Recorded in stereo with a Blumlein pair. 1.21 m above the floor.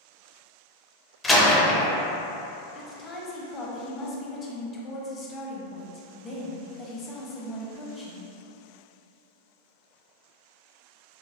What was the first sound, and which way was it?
A door slam, 10° left.